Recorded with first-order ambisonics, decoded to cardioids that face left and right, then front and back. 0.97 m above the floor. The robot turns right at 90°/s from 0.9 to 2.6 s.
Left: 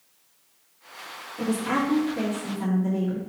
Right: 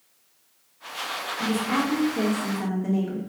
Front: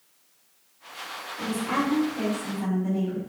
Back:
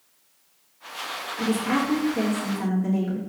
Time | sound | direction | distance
1.4 | a woman speaking | 115° left | 1.6 m